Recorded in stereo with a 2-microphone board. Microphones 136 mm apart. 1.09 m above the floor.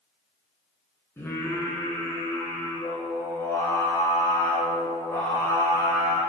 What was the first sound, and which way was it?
Singing, 20° left (ahead or behind).